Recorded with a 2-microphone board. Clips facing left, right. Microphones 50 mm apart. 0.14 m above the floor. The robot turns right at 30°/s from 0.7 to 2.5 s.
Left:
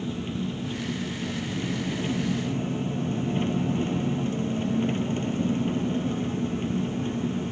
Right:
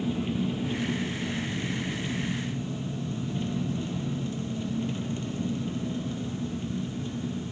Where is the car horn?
No car horn in this recording.